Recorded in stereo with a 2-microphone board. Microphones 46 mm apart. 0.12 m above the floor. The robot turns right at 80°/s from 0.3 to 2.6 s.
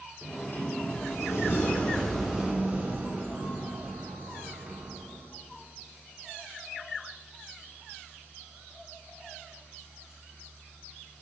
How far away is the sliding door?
About 2.0 m.